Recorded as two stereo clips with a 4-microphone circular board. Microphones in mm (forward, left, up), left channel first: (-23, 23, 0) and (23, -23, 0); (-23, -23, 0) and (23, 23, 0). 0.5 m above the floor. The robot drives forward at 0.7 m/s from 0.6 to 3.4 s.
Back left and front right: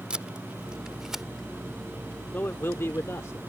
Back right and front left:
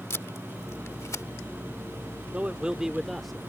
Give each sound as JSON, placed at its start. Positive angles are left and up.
{"t": 0.1, "sound": "tape being pulled", "azimuth_deg": -115}
{"t": 2.3, "sound": "a man speaking", "azimuth_deg": 95}